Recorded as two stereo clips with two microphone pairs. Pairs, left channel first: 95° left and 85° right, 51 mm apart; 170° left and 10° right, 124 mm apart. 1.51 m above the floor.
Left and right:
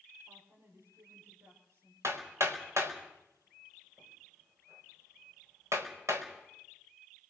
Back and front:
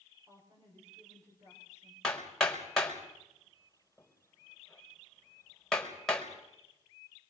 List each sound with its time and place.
0.3 s a woman speaking: 70° right, 6.5 m
2.0 s hammering: 105° right, 4.5 m